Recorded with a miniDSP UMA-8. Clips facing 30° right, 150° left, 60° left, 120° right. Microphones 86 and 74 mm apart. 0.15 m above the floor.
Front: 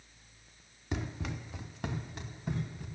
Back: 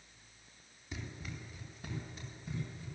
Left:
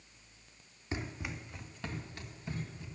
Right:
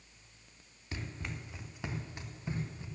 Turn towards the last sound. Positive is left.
turn(degrees=-60)